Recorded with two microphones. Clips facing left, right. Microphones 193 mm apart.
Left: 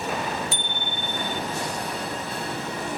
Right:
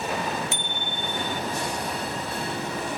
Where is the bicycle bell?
35° left (ahead or behind).